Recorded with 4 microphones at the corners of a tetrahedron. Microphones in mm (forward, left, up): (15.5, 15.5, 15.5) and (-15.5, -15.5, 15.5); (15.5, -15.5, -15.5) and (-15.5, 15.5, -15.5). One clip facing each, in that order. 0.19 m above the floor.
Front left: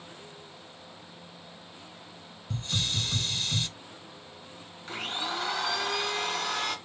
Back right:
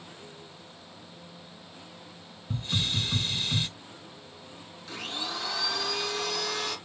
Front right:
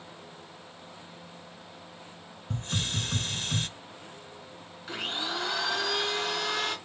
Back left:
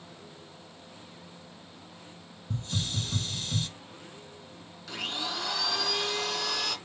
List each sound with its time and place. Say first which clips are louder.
2.5 s a hiss: back right 1 dB, front right 2 dB; 60° right, 0.7 m
4.9 s a blender: front left 2 dB, front right 1 dB; 15° left, 2 m